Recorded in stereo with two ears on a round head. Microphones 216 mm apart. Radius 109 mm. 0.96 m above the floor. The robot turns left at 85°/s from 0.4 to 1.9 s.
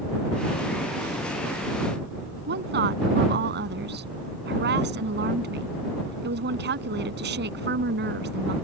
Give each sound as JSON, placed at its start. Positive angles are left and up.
{"t": 2.5, "sound": "a woman speaking", "side_deg": -45}